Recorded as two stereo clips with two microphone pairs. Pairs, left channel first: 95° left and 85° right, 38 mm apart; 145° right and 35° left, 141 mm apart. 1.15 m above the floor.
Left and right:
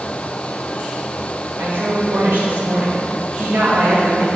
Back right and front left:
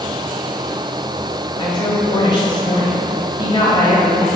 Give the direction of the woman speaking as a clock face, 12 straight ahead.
3 o'clock.